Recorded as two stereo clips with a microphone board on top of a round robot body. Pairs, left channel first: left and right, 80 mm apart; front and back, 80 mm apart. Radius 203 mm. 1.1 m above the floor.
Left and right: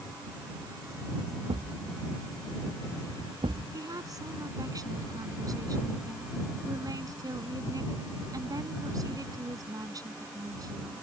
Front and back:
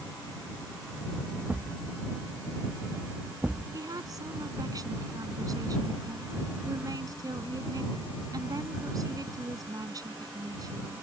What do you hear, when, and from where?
1.5 s a thud: 105° right
3.7 s a woman speaking: 135° right